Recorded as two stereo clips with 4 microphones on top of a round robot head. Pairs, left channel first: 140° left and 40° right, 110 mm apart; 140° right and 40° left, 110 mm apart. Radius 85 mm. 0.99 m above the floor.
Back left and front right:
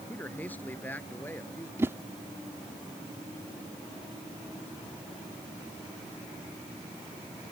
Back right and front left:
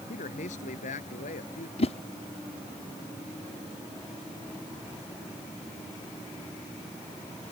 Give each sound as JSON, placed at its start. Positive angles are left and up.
{"t": 0.1, "sound": "a man speaking", "azimuth_deg": -145}
{"t": 1.8, "sound": "a whoosh", "azimuth_deg": -110}